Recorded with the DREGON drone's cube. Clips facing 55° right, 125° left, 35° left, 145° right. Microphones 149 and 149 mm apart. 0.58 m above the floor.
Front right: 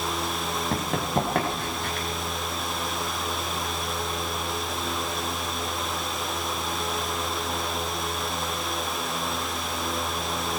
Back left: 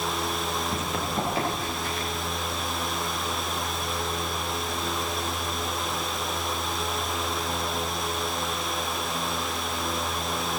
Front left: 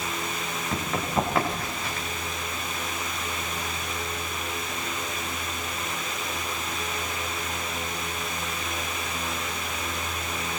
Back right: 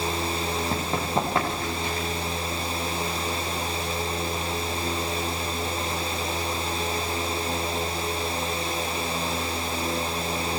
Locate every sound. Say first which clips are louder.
0.7 s running footsteps: front right 3 dB, front left 2 dB; 80° right, 7.5 m